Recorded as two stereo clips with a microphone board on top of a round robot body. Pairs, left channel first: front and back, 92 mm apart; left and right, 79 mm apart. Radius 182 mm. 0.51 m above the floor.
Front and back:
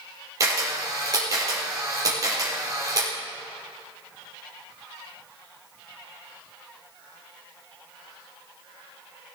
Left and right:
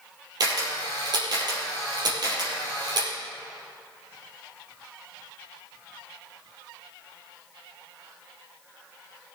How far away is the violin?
No violin in this recording.